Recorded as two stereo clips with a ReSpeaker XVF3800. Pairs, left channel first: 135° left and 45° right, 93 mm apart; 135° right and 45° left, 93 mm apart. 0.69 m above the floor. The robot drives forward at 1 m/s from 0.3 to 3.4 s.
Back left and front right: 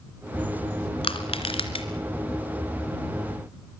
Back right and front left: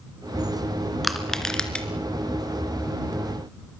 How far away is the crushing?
About 2.5 m.